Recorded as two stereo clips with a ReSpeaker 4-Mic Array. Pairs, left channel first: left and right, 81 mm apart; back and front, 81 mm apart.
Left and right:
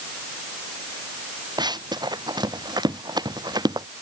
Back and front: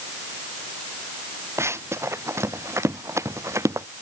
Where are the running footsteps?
55° right.